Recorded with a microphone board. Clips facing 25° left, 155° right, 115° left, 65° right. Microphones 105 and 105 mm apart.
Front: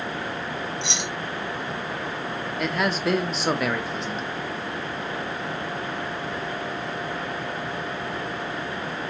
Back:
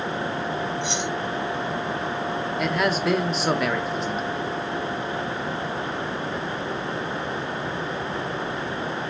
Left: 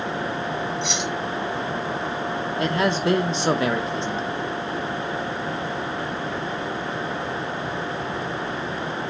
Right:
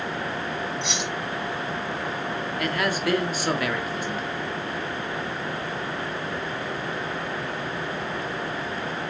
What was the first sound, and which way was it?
Keys jangling, 20° left.